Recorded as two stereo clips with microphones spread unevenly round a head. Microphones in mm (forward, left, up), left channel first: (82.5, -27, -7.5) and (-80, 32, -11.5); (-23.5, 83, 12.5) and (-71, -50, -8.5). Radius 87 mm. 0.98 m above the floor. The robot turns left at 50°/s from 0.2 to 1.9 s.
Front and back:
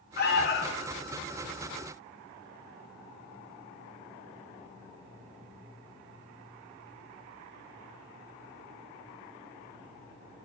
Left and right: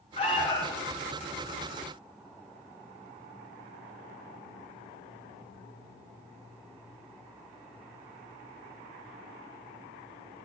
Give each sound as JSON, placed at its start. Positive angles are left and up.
{"t": 0.2, "sound": "an alarm", "azimuth_deg": 10, "distance_m": 0.8}